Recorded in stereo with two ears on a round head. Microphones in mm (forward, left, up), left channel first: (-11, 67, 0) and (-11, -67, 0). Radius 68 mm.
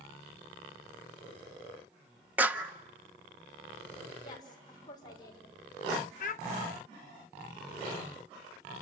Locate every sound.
2.4 s a clap: 10° right (ahead or behind), 0.9 m
4.2 s a woman speaking: 25° left (ahead or behind), 5.5 m
6.2 s a child speaking: 55° left (ahead or behind), 1.0 m